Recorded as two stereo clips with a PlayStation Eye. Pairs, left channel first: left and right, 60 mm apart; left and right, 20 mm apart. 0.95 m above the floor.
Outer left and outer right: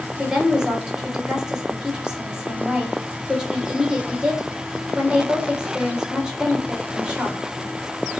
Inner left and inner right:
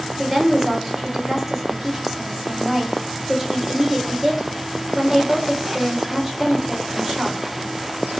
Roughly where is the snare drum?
No snare drum in this recording.